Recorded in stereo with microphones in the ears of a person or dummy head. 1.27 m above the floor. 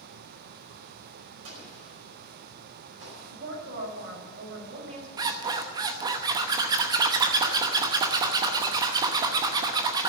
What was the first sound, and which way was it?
An explosion, 65° right (ahead or behind).